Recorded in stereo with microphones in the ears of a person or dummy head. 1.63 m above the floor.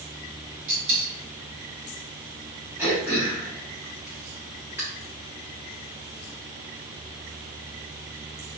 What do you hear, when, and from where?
0.7 s a dropped coin: 40° right (ahead or behind), 2 m
2.8 s throat clearing: 10° right (ahead or behind), 1.2 m